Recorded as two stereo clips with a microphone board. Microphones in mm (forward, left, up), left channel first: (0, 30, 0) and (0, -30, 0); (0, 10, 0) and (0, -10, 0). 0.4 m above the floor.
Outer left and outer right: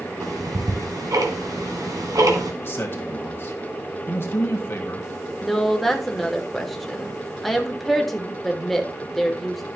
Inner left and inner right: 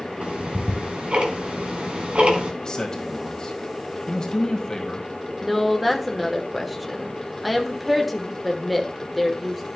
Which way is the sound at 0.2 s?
75° right (ahead or behind).